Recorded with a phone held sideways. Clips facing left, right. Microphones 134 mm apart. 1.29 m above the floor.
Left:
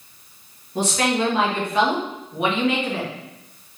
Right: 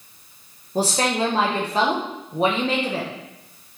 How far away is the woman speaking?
About 1.0 m.